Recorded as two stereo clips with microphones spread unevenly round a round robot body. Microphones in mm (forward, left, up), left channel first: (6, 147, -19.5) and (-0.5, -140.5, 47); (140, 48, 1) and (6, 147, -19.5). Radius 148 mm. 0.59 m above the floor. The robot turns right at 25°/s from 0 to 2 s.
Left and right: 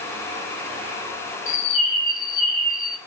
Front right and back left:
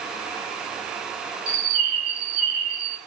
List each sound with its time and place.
1.5 s a bird: 150° left, 2.5 m; by 3.0 s 165° left, 2.5 m